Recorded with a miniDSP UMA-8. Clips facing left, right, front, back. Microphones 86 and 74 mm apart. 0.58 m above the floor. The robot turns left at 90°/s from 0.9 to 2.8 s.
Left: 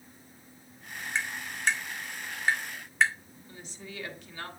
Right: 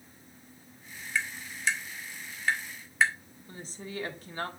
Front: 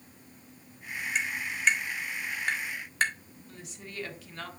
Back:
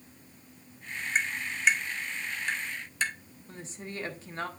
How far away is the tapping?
About 1.7 m.